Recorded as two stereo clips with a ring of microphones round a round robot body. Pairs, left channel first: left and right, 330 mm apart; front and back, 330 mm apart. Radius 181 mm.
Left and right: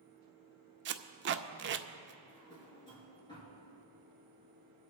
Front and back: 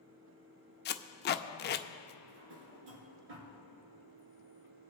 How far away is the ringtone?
I don't hear a ringtone.